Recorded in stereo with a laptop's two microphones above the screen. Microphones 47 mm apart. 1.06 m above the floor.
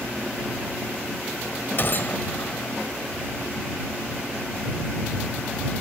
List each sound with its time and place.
1.8 s a gunshot: 50° left (ahead or behind)